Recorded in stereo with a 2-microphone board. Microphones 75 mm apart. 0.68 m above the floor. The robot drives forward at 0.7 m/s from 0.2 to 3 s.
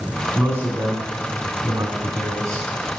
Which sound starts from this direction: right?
A man speaking, at 0.3 s.